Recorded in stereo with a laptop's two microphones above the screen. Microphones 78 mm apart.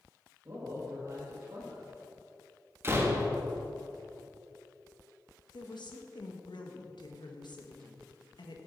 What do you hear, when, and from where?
0.5 s a man speaking: 45° right (ahead or behind), 1.4 m
2.8 s a door slam: 30° right (ahead or behind), 1.2 m
5.5 s a woman speaking: 70° left (ahead or behind), 1.1 m